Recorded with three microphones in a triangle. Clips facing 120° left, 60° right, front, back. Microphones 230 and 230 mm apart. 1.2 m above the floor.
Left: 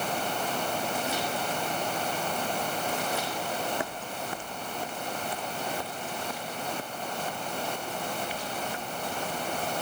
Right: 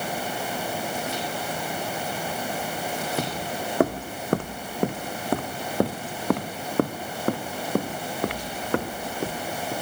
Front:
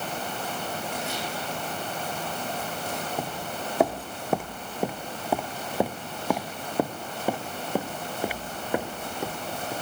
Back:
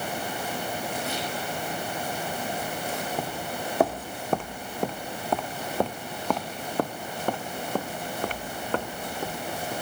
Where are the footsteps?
90° right; by 9.7 s 80° right.